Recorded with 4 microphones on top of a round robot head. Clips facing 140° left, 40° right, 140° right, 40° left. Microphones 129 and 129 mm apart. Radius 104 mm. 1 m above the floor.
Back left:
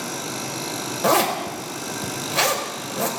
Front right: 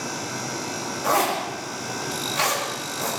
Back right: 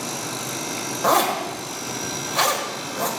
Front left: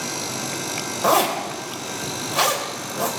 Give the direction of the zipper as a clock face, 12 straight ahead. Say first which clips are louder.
Back left 3 dB, front left 1 dB; 8 o'clock.